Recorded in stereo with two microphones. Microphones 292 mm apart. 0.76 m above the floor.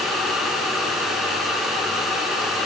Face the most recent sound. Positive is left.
No sound to turn to.